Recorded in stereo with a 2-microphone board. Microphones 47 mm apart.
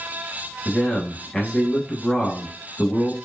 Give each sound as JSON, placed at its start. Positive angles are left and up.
{"t": 0.7, "sound": "a man speaking", "side_deg": 10, "distance_m": 1.0}